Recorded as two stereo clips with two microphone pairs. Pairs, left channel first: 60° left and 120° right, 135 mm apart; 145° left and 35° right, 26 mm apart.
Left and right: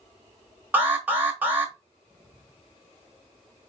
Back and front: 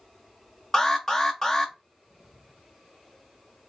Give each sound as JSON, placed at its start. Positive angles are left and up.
{"t": 0.7, "sound": "an alarm", "azimuth_deg": 175, "distance_m": 1.6}